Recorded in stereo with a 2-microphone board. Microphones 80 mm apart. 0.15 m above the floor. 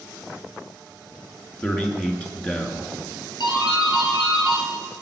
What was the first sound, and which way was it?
A man speaking, 20° left (ahead or behind).